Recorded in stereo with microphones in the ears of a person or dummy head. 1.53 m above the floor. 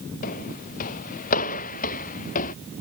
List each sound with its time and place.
0.2 s footsteps: 45° left (ahead or behind); by 2.5 s 40° left (ahead or behind)